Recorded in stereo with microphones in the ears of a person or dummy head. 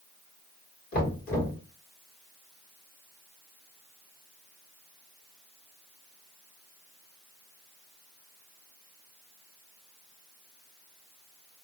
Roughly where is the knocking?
Left.